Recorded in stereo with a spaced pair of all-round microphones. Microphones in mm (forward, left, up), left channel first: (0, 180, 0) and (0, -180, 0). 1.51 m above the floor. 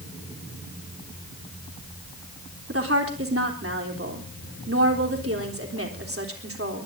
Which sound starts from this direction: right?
A woman speaking, at 2.7 s.